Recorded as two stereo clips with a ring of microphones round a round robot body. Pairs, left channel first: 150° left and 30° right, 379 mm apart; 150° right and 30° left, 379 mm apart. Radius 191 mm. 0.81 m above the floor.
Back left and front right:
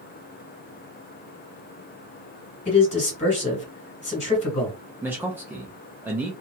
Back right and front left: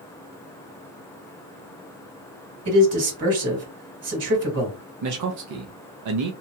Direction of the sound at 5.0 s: 55° left.